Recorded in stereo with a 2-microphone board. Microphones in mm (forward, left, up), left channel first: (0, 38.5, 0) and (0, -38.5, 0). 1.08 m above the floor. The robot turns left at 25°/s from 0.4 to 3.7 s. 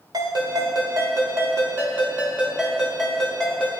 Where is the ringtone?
115° right, 3.5 m; by 3.8 s 165° left, 3.5 m.